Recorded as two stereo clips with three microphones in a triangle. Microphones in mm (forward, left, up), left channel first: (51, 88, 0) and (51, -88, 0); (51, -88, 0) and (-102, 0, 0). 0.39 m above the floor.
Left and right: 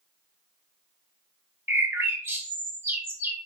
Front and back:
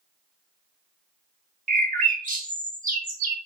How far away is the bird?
About 0.5 m.